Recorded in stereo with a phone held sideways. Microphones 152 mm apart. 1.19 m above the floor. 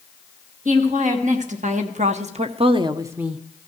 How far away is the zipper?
I don't hear a zipper.